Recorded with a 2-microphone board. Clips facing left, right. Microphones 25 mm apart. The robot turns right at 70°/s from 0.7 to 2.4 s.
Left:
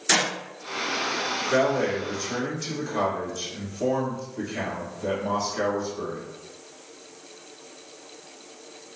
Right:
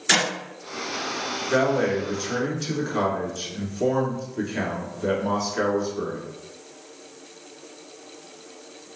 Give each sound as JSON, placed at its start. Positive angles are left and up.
{"t": 0.1, "sound": "a clap", "side_deg": -45, "distance_m": 1.1}
{"t": 1.5, "sound": "a man speaking", "azimuth_deg": -155, "distance_m": 1.1}